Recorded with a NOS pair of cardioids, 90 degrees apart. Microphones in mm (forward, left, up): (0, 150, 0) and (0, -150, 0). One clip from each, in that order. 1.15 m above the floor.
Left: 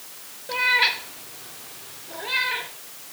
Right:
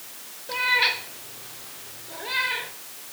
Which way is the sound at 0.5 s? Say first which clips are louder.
Left 2 dB; 10° left.